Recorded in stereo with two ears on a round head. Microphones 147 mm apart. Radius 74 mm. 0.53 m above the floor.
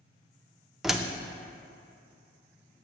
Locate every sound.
0.8 s a door slam: centre (ahead or behind), 0.5 m